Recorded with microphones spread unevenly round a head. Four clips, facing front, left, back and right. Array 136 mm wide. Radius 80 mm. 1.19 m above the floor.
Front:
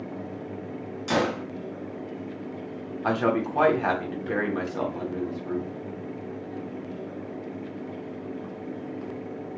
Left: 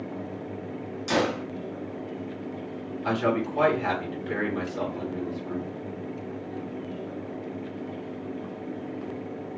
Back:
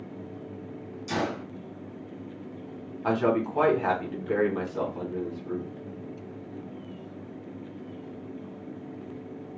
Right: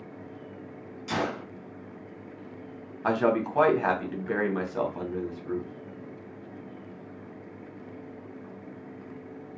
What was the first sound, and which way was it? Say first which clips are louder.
A gunshot: left 5 dB, front 5 dB; 35° left.